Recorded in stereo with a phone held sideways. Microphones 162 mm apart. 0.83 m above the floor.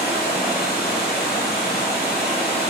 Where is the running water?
75° left (ahead or behind), 5.5 m.